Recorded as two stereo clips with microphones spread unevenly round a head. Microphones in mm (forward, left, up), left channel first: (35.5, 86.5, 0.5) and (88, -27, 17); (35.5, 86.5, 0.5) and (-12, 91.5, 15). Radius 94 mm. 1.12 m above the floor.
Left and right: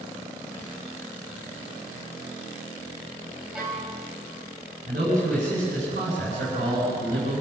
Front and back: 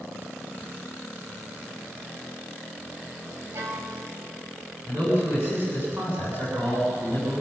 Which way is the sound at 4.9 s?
115° right.